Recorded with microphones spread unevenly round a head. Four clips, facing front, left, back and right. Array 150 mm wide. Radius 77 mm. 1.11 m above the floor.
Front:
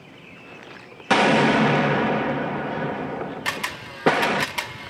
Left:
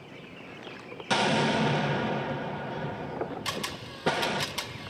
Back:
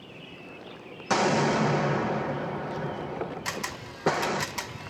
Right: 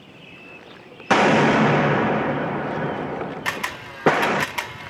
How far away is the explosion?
About 0.9 m.